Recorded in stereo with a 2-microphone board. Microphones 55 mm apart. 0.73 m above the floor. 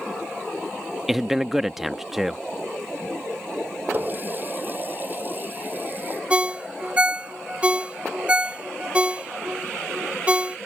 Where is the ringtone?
20° right (ahead or behind).